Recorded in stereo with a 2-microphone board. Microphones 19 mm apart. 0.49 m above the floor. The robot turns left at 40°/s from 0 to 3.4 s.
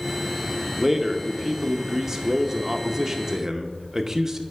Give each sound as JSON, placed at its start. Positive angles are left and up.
{"t": 0.8, "sound": "a man speaking", "side_deg": 0, "distance_m": 0.7}